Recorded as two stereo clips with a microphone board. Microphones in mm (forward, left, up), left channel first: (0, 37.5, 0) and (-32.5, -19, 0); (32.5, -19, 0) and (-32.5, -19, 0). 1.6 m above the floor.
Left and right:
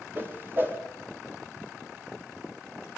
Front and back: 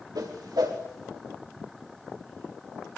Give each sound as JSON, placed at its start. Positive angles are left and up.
{"t": 0.1, "sound": "a whoosh", "azimuth_deg": 180, "distance_m": 4.5}